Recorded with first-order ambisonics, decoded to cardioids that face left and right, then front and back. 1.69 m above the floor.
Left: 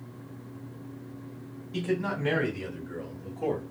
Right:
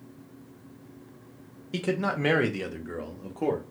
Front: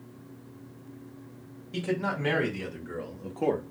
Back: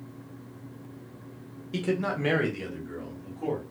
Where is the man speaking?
110° right, 1.3 m; by 3.6 s 30° right, 0.8 m.